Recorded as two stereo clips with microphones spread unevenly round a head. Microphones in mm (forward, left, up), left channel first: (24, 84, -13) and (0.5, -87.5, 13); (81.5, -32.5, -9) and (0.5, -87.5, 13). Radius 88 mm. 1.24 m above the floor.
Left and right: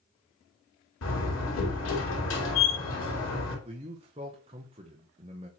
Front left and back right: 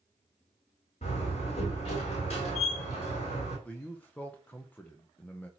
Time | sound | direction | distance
1.0 | a door slam | 85° left | 3.5 m
3.6 | a man speaking | 35° right | 0.9 m